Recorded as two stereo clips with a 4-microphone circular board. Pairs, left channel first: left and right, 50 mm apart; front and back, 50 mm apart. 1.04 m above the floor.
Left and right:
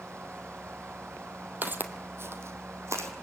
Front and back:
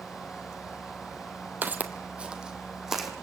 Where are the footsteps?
135° right, 1.8 m; by 3.1 s 95° right, 3 m.